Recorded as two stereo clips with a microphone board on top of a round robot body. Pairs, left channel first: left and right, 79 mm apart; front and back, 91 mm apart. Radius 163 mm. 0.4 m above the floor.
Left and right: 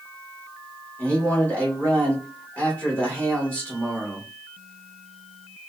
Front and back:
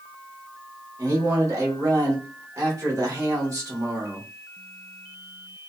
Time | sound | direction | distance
1.0 | a man speaking | 150° left | 1.4 m